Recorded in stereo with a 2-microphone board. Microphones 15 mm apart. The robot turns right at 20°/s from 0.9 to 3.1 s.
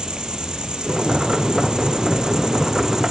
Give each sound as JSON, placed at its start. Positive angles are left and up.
{"t": 0.0, "sound": "an insect", "azimuth_deg": -90, "distance_m": 1.0}